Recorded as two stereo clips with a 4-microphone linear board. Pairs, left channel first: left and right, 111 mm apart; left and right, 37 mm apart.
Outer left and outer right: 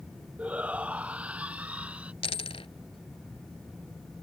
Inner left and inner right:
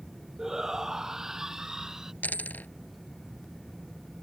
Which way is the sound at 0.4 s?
10° right (ahead or behind).